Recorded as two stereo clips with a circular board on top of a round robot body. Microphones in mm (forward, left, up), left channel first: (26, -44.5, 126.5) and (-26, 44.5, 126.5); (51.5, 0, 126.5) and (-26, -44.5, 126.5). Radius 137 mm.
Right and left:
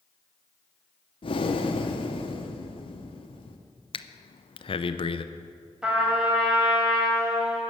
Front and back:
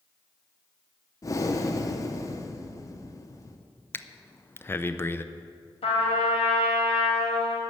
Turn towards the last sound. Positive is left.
turn(degrees=35)